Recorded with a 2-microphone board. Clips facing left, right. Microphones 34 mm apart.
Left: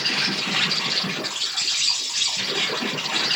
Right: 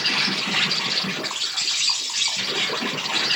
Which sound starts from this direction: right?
An insect, at 0.0 s.